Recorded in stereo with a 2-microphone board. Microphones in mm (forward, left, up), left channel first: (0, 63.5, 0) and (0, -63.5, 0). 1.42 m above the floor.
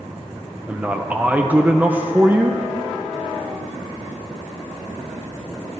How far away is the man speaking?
About 0.7 m.